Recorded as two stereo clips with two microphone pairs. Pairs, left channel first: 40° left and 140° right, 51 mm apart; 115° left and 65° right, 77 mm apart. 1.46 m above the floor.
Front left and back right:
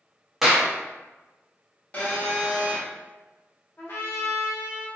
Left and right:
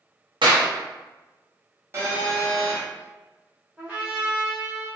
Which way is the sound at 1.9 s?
15° right.